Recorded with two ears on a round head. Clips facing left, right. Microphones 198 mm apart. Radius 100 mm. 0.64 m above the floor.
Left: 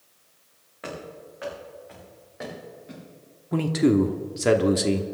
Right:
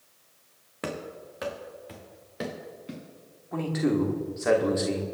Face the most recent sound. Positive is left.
turn(degrees=45)  # may be behind; listen again after turning